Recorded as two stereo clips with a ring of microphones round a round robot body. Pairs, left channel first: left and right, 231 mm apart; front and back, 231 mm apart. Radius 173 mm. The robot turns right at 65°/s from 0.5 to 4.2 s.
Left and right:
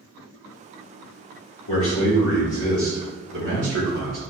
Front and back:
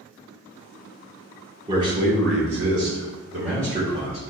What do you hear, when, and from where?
1.7 s a man speaking: 115° left, 1.6 m; by 4.2 s 80° right, 1.6 m